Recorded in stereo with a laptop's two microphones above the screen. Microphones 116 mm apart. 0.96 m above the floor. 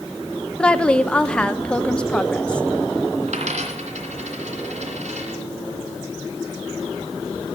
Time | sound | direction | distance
0.6 | a woman speaking | 10° left (ahead or behind) | 0.8 m
3.3 | a dropped coin | 70° right (ahead or behind) | 2.5 m